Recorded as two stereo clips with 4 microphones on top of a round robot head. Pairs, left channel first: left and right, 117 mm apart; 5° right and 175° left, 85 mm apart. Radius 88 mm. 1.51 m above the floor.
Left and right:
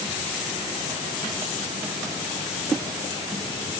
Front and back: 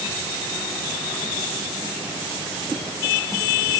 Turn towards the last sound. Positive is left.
No sound to turn to.